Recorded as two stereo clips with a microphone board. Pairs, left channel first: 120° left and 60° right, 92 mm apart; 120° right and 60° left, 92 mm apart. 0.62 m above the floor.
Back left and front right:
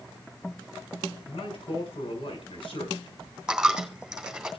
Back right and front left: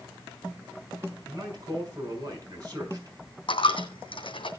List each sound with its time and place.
1.3 s a man speaking: 115° left, 6.5 m
3.5 s a dropped coin: 140° right, 2.5 m